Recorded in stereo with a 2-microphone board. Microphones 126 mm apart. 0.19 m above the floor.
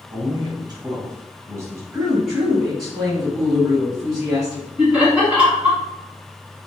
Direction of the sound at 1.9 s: 5° right (ahead or behind).